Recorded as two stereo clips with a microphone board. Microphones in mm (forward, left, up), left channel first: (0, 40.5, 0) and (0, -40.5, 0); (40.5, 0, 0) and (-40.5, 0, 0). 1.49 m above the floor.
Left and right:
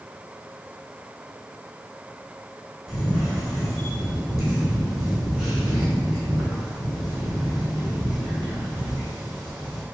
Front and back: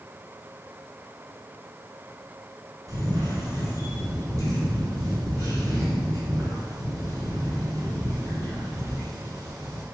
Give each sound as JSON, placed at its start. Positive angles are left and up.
{"t": 2.9, "sound": "a camera shutter", "azimuth_deg": -175, "distance_m": 1.8}